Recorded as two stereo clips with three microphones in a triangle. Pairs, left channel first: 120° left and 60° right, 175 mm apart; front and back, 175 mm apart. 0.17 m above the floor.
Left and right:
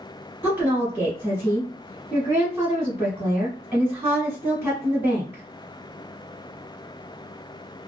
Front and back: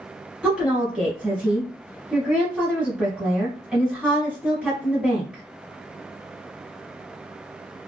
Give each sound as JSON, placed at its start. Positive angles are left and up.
{"t": 0.4, "sound": "a woman speaking", "azimuth_deg": -105, "distance_m": 1.1}